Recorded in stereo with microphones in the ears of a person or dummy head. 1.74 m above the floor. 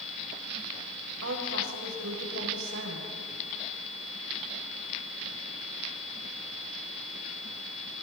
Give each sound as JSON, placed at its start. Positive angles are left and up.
{"t": 1.2, "sound": "a woman speaking", "side_deg": -75, "distance_m": 7.5}